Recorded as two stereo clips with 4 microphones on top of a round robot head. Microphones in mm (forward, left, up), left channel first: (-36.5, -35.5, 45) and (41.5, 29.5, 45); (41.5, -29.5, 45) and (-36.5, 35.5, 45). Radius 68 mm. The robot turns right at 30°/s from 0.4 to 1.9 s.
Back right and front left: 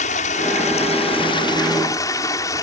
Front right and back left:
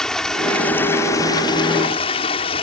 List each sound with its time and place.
0.0 s running water: 125° right; by 2.6 s 80° right